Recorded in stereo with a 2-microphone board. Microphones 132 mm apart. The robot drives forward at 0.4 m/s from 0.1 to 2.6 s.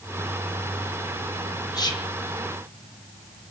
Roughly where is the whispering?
Left.